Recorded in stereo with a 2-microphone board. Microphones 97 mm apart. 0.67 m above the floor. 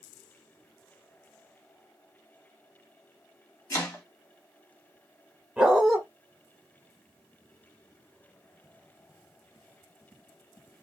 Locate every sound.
3.7 s chopping: 35° left (ahead or behind), 1.1 m
5.6 s a dog barking: 5° right (ahead or behind), 0.8 m